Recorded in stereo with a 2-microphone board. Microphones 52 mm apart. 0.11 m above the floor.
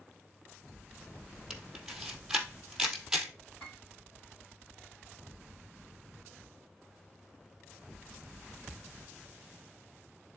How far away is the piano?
About 2 m.